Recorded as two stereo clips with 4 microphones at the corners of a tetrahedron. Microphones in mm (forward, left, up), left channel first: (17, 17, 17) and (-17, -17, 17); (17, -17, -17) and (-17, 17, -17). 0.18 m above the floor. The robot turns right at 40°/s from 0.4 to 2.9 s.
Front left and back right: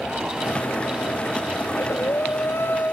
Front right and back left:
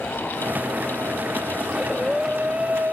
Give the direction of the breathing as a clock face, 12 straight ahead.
11 o'clock.